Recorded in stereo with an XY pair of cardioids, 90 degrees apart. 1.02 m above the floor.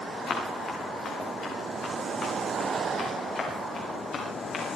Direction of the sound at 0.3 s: 65° left.